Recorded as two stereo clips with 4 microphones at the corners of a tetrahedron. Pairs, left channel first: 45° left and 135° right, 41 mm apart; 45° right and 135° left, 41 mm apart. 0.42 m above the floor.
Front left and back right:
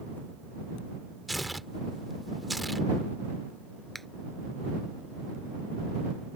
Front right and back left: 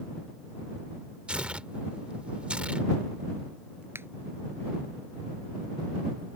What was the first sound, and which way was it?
Tearing paper, 135° left.